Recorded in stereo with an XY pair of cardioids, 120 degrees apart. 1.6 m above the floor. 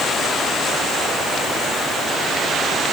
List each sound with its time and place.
Only background noise.